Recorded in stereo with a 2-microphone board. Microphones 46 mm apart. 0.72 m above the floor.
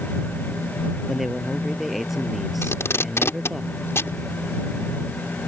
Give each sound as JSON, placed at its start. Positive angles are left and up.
{"t": 1.1, "sound": "a man speaking", "side_deg": 0}
{"t": 2.6, "sound": "tape being pulled", "side_deg": 65}